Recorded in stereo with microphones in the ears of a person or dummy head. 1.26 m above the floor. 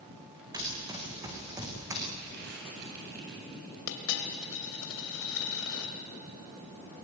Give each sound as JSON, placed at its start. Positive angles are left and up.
{"t": 0.5, "sound": "running footsteps", "side_deg": -20, "distance_m": 6.5}
{"t": 2.2, "sound": "crumpling", "side_deg": -55, "distance_m": 9.5}
{"t": 3.9, "sound": "a dropped coin", "side_deg": 75, "distance_m": 3.0}